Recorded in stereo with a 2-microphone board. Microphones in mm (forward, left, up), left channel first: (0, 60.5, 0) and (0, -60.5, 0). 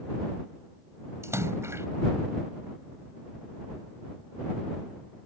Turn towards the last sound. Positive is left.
turn(degrees=-20)  # may be behind; listen again after turning